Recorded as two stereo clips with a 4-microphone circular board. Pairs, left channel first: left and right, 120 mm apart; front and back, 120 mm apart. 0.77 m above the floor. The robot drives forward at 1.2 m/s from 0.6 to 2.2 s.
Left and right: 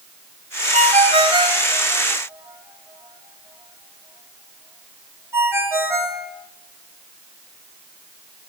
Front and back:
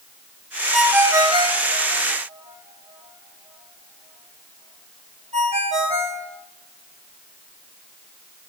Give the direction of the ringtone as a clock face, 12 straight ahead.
3 o'clock.